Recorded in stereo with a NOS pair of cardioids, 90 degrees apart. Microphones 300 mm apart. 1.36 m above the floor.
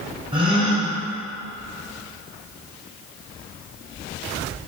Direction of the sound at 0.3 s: 15° right.